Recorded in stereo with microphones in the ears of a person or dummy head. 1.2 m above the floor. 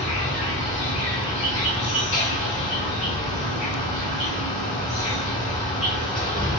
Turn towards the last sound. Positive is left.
turn(degrees=10)  # may be behind; listen again after turning